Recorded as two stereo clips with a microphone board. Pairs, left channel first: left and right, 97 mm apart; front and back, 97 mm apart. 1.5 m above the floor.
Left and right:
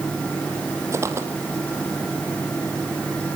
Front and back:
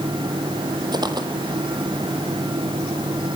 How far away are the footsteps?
About 3 m.